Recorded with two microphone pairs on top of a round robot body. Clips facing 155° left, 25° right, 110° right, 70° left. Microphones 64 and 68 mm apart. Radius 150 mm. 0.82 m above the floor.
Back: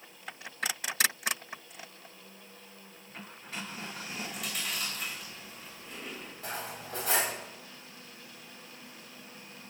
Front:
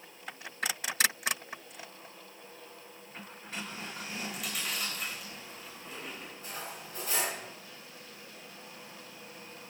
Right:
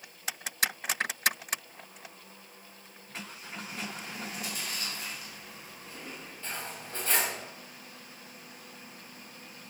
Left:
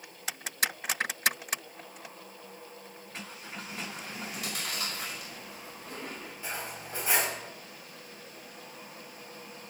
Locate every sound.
4.2 s chewing: 65° left, 6 m
6.4 s cutlery clinking: 145° left, 4 m